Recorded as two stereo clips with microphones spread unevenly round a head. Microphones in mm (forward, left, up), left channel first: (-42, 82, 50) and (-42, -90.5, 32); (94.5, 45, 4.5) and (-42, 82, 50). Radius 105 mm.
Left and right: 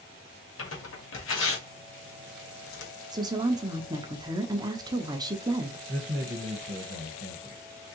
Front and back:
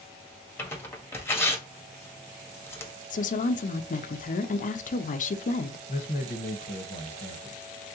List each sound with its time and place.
0.6 s tearing paper: 65° left, 1.4 m
3.1 s a woman speaking: 25° right, 0.5 m
5.9 s a man speaking: 55° right, 1.1 m